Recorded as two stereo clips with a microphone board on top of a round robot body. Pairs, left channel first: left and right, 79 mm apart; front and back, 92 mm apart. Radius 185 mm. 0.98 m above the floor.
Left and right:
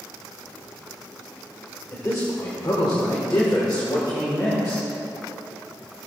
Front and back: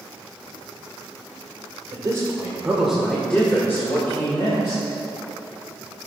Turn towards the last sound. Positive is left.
turn(degrees=50)